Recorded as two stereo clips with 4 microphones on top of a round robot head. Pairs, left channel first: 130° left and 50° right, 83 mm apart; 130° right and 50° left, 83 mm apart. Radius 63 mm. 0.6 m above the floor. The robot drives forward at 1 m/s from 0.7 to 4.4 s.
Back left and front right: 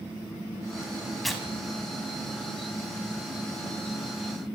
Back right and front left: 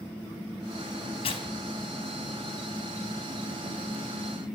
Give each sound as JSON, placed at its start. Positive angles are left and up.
{"t": 1.2, "sound": "tearing paper", "azimuth_deg": -140, "distance_m": 5.5}